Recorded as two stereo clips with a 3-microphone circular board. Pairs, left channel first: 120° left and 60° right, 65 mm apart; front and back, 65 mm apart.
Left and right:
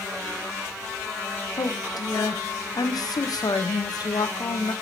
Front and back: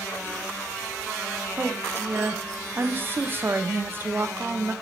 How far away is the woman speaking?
About 0.8 m.